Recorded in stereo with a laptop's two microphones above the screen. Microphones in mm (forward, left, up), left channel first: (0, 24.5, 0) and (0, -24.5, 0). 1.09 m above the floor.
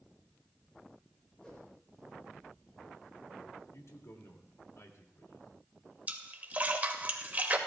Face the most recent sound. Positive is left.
turn(degrees=-35)  # may be behind; listen again after turning